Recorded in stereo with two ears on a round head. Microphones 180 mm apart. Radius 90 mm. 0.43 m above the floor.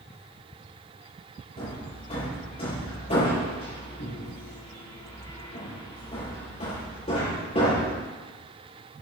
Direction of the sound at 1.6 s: 30° left (ahead or behind).